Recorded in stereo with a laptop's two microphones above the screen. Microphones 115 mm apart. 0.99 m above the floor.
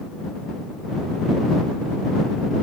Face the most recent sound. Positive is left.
No sound to turn to.